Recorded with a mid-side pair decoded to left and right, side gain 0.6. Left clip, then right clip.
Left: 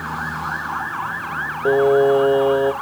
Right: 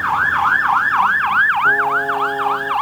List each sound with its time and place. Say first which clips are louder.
1.6 s singing: even; 60° left, 0.7 m